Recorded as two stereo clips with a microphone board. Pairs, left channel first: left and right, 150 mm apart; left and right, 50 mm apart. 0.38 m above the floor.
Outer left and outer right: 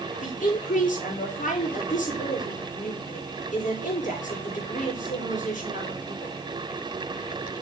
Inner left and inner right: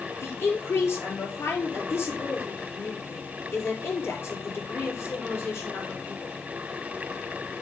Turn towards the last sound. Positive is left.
turn(degrees=60)  # may be behind; listen again after turning